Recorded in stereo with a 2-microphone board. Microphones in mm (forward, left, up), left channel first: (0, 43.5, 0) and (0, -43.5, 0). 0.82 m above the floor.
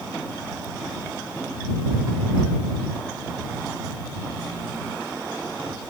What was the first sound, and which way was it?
Only background noise.